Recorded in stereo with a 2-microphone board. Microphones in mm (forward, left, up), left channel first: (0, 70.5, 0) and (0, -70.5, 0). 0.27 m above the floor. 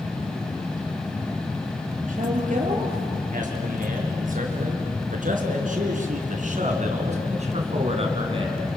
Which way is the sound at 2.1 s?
65° right (ahead or behind).